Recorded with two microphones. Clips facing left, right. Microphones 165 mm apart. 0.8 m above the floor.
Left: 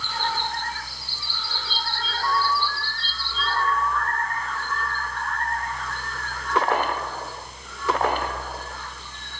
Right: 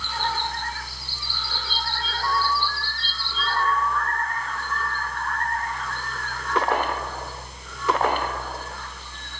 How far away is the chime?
No chime in this recording.